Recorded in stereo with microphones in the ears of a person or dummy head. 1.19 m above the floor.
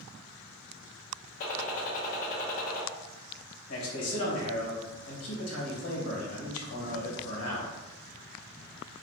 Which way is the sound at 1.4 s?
45° left (ahead or behind).